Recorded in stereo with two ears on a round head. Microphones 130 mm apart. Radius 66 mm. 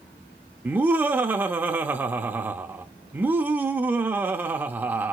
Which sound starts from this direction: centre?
Laughter, at 0.7 s.